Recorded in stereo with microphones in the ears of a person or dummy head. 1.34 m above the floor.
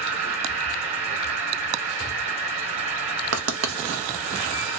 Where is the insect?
40° right (ahead or behind), 1.3 m.